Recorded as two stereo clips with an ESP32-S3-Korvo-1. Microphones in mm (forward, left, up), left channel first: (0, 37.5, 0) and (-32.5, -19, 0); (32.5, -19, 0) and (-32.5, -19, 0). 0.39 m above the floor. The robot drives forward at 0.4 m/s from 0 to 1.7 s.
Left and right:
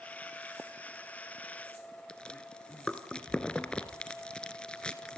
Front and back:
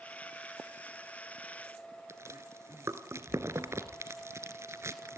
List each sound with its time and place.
2.1 s chewing: 135° left, 1.5 m